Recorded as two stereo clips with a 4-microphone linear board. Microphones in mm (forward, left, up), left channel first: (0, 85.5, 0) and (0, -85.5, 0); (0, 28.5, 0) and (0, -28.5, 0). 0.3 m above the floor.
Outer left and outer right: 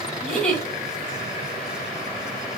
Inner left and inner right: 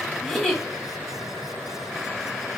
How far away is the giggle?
About 2 m.